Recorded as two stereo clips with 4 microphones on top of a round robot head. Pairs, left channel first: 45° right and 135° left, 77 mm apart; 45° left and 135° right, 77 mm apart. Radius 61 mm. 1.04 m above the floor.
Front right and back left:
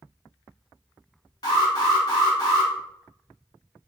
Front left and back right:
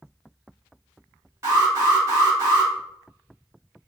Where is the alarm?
80° right, 1.2 m.